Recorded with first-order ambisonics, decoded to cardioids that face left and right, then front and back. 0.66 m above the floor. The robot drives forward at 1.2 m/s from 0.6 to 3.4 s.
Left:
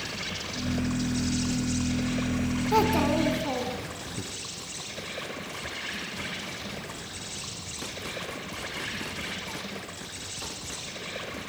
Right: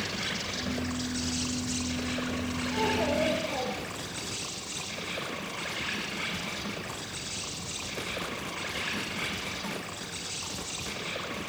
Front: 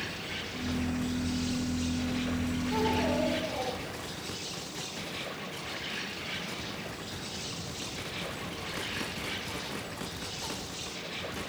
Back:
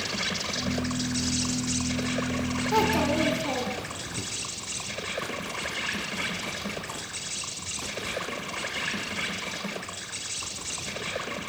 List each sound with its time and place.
0.0 s an insect: straight behind, 6.5 m
2.7 s a child speaking: 125° left, 4.5 m; by 4.2 s 130° left, 5 m